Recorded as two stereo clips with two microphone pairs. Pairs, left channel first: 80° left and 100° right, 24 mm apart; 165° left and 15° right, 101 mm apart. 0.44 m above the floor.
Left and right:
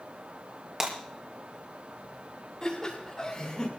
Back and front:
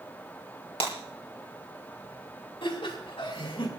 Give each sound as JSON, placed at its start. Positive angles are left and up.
{"t": 0.8, "sound": "breaking glass", "azimuth_deg": -170, "distance_m": 3.5}
{"t": 2.6, "sound": "laughter", "azimuth_deg": 145, "distance_m": 3.5}